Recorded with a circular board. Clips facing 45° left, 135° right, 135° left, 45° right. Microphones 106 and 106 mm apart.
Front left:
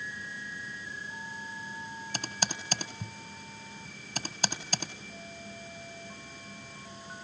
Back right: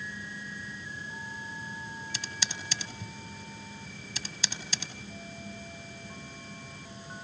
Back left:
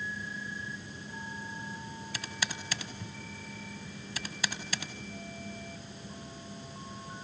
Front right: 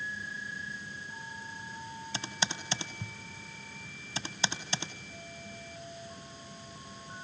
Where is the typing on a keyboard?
10° left, 1.4 m.